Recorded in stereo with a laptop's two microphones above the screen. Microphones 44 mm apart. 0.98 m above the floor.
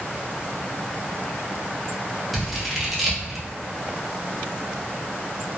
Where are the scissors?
5° right (ahead or behind), 0.7 m.